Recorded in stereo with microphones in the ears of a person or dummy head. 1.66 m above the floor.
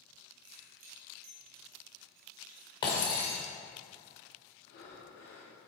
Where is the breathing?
75° left (ahead or behind), 2 m.